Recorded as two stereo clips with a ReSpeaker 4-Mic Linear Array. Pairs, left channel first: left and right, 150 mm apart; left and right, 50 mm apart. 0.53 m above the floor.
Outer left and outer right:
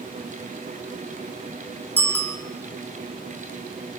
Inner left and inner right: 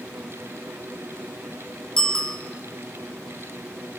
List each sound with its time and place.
2.0 s a bicycle bell: 10° left (ahead or behind), 3 m